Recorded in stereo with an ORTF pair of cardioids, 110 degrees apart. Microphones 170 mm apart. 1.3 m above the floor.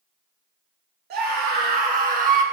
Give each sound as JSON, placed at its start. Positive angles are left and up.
{"t": 1.1, "sound": "a scream", "azimuth_deg": -65, "distance_m": 2.0}